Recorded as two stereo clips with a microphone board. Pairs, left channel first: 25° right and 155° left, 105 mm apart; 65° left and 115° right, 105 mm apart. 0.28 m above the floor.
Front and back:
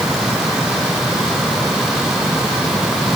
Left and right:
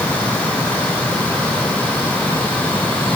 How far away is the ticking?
No ticking in this recording.